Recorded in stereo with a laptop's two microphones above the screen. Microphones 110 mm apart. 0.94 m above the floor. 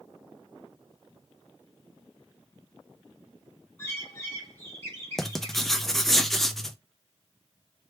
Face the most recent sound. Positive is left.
turn(degrees=5)  # may be behind; listen again after turning